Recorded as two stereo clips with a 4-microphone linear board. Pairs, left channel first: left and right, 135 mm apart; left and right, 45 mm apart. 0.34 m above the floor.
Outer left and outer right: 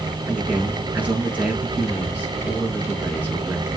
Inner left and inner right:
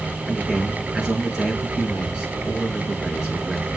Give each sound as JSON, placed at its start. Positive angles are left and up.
{"t": 0.2, "sound": "a man speaking", "side_deg": -10, "distance_m": 4.5}